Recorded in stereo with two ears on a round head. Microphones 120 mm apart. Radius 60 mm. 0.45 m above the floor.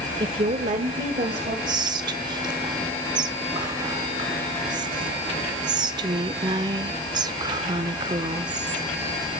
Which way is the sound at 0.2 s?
35° right (ahead or behind).